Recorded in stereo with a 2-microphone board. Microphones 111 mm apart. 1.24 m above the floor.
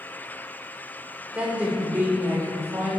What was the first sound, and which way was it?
A woman speaking, 10° right (ahead or behind).